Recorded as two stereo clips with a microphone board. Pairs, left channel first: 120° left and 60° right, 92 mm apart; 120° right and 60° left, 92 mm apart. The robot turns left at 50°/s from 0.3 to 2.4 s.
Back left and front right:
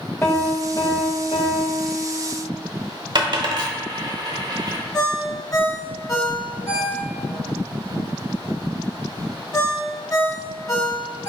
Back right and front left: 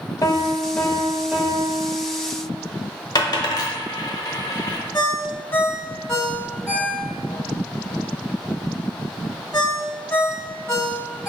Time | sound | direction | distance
0.2 | a piano | 170° right | 0.9 m
3.1 | a dropped coin | 85° right | 0.8 m
4.9 | a ringtone | 170° left | 1.2 m